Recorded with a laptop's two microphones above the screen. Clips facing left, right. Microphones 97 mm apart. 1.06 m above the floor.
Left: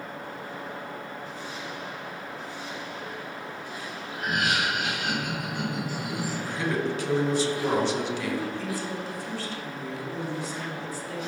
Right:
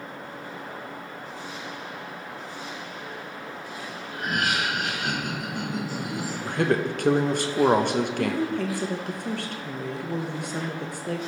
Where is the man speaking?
60° right (ahead or behind), 0.7 m.